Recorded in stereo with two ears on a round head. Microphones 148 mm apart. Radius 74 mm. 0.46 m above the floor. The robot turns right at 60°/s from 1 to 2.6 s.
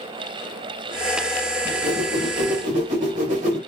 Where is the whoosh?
155° right, 2.0 m; by 3.6 s 95° right, 2.0 m.